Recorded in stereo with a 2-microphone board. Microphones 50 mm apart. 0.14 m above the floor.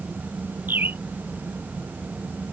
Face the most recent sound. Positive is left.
turn(degrees=-40)  # may be behind; listen again after turning